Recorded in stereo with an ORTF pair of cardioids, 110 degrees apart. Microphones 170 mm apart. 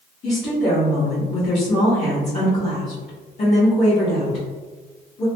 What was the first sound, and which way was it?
A woman speaking, 45° left.